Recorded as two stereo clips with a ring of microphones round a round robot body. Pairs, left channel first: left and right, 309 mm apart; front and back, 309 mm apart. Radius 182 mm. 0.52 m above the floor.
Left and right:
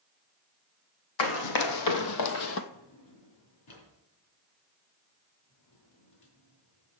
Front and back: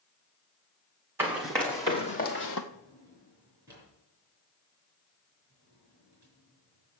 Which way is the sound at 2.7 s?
100° left.